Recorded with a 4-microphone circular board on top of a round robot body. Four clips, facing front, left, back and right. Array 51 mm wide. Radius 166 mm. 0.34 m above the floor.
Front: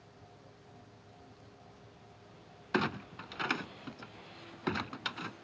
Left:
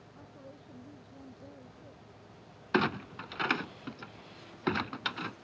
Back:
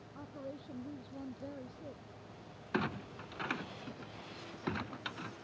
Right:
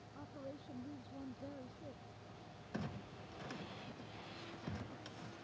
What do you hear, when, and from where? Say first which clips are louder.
0.1 s a woman speaking: right 2 dB, back 16 dB; 170° right
2.7 s a clunk: left 17 dB, front 4 dB; 75° left